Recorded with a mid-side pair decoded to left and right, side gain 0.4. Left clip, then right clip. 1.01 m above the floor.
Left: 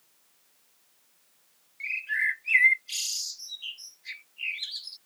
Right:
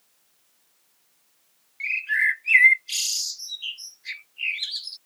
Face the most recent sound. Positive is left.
turn(degrees=-45)